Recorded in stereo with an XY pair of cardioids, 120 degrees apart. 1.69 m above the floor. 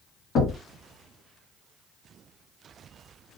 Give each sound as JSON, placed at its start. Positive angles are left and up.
{"t": 0.3, "sound": "knocking", "azimuth_deg": 60, "distance_m": 1.8}